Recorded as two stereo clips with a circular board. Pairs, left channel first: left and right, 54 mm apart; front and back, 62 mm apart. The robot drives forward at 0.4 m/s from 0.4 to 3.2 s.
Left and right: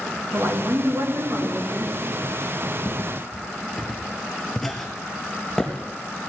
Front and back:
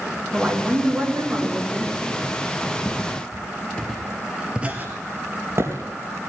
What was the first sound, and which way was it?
A woman speaking, 100° right.